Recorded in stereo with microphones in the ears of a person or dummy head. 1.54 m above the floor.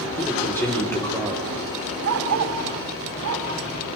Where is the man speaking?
10° left (ahead or behind), 6 m.